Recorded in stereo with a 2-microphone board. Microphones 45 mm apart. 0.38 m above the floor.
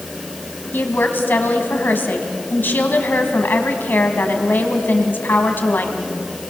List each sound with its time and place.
0.7 s a woman speaking: 50° left (ahead or behind), 3 m